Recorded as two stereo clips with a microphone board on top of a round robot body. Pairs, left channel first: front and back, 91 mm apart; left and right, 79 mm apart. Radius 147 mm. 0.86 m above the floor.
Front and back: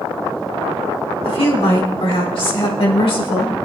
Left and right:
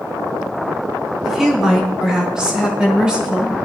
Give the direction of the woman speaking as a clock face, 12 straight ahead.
12 o'clock.